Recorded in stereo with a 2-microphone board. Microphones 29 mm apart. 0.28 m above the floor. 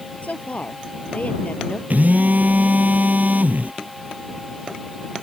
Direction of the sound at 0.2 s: 55° left (ahead or behind).